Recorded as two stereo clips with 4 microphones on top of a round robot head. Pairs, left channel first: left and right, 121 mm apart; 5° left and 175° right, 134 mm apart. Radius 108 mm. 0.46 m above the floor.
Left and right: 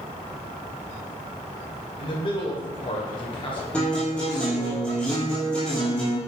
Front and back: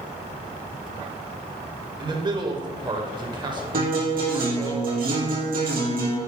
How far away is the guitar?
About 4 m.